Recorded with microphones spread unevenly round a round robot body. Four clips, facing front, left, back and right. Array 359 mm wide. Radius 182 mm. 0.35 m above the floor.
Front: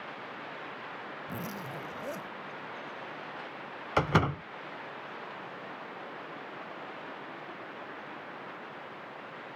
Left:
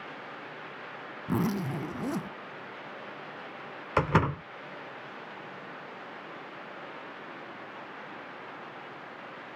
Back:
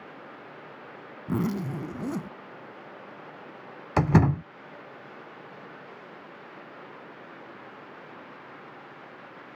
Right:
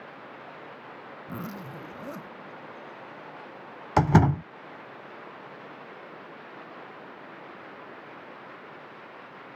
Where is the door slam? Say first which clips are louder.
Right 5 dB, back 5 dB; 140° right.